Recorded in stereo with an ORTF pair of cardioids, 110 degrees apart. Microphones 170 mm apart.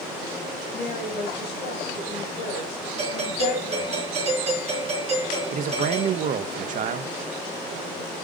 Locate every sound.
0.7 s a woman speaking: 65° left, 5.5 m
3.0 s a doorbell: 40° right, 4 m
5.5 s a man speaking: 55° right, 0.8 m